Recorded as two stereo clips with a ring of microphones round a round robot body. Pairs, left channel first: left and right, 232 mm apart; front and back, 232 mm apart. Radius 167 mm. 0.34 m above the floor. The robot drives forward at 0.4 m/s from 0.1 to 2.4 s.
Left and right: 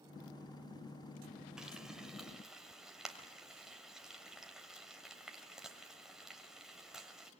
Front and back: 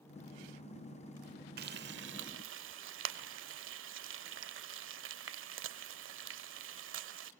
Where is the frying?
175° right, 0.8 m; by 7.3 s straight behind, 1.1 m.